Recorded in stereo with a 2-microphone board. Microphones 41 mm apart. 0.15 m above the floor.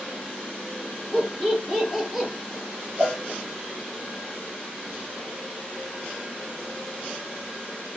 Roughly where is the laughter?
Centre.